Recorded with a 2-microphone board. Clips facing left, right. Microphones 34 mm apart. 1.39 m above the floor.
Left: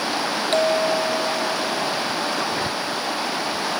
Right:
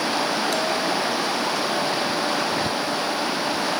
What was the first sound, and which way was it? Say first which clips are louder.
A bell: left 4 dB; 45° left (ahead or behind).